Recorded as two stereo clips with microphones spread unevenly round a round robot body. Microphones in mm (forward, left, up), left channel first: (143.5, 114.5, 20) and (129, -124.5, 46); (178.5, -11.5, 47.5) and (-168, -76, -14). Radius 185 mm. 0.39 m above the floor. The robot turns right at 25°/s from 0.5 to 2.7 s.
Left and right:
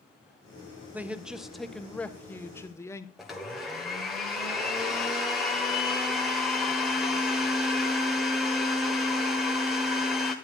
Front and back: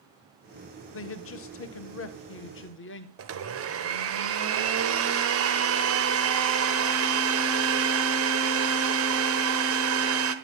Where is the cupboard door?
I don't hear a cupboard door.